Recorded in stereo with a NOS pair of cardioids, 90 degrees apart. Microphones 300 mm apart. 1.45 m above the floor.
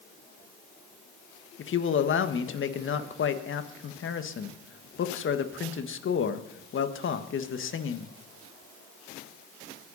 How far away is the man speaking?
About 1.7 m.